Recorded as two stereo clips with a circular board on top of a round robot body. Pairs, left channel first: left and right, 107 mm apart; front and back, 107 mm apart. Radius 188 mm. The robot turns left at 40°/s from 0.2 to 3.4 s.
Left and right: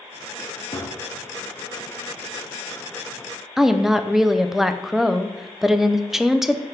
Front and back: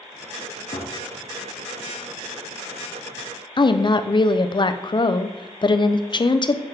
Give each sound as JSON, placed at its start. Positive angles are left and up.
{"t": 0.7, "sound": "a gunshot", "azimuth_deg": 35, "distance_m": 0.6}
{"t": 3.6, "sound": "a woman speaking", "azimuth_deg": -5, "distance_m": 0.6}